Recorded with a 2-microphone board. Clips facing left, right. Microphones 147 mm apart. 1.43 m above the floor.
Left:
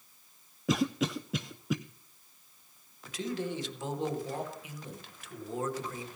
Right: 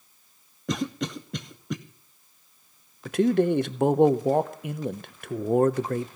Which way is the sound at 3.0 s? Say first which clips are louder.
Right 14 dB; 60° right (ahead or behind).